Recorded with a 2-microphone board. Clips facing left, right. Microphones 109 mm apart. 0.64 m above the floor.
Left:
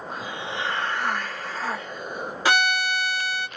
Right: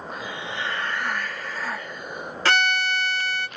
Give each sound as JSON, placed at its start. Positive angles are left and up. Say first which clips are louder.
{"t": 0.1, "sound": "a hiss", "louder": "left 1 dB", "side_deg": 65, "distance_m": 1.7}
{"t": 2.5, "sound": "a violin", "louder": "even", "side_deg": 15, "distance_m": 0.6}